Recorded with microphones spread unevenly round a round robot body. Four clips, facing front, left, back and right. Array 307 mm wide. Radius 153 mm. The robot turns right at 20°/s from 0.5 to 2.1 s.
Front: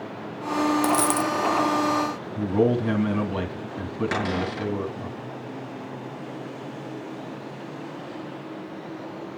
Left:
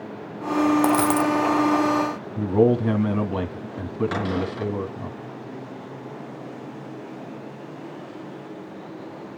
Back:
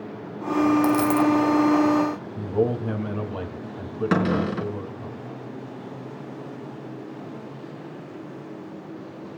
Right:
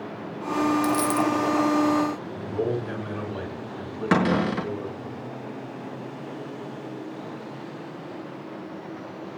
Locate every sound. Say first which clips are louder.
0.8 s a dropped coin: left 3 dB, back 3 dB; 75° left, 0.8 m; by 1.3 s 85° left, 0.8 m
2.4 s a man speaking: left 10 dB, front 3 dB; 65° left, 3 m
4.1 s a cupboard door: right 4 dB, back 8 dB; 125° right, 3.5 m